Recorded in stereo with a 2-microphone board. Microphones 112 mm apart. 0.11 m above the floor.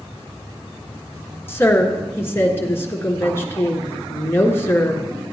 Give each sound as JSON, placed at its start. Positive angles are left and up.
{"t": 1.5, "sound": "a woman speaking", "side_deg": 25, "distance_m": 1.5}